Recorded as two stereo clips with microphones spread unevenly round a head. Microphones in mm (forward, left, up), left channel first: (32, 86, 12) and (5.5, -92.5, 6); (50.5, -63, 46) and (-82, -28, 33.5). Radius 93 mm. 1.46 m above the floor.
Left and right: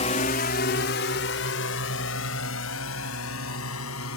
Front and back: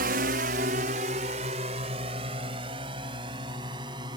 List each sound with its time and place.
0.0 s a drone: 140° left; by 4.2 s 100° left